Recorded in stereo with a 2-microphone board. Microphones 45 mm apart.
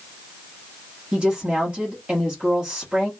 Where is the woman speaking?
25° right (ahead or behind), 1.2 m.